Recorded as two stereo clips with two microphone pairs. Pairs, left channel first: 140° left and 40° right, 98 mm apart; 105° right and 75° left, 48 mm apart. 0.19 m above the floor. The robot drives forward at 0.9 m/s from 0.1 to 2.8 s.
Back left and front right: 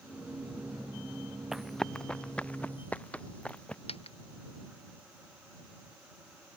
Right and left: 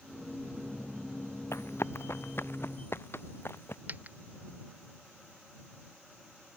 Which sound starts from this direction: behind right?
Running footsteps, at 1.5 s.